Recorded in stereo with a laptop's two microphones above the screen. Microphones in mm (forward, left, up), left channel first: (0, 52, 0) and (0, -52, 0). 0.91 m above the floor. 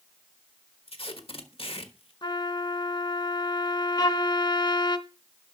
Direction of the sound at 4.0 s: 40° left (ahead or behind).